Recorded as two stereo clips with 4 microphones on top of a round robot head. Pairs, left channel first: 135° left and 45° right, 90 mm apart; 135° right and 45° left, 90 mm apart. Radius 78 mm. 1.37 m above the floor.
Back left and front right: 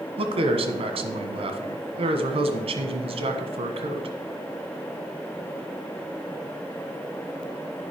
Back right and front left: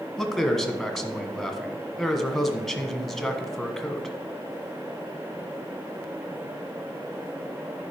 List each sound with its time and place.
0.2 s a man speaking: 50° right, 1.4 m